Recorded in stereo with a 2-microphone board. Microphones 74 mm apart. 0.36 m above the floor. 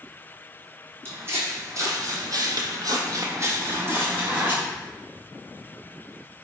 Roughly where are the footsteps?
Right.